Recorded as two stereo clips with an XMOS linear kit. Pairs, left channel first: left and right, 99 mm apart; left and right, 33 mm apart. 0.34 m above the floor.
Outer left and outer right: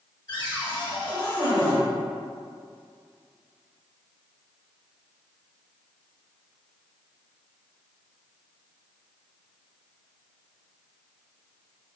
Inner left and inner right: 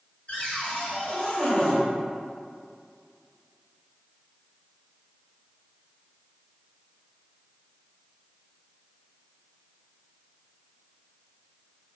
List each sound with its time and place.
0.3 s a cupboard door: 40° left (ahead or behind), 1.3 m